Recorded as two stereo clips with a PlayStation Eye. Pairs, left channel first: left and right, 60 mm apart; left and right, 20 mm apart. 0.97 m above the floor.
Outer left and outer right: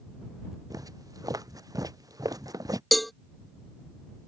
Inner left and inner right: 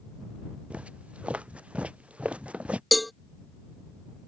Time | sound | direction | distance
0.7 | footsteps | 85° right | ?
2.9 | a cowbell | 5° left (ahead or behind) | ?